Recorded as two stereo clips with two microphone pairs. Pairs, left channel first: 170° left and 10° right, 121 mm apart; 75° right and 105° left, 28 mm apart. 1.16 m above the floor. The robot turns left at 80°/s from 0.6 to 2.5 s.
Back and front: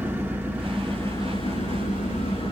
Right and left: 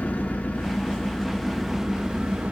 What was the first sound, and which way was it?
An engine running, 85° right.